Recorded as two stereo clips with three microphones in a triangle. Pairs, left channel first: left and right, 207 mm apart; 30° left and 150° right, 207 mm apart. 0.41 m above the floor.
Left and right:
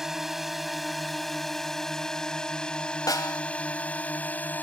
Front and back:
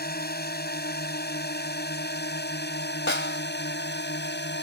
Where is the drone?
Straight ahead; by 4.6 s 10° left.